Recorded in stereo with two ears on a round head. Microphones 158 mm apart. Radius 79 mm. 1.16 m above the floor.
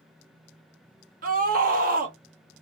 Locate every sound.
1.2 s a scream: 50° right (ahead or behind), 1.1 m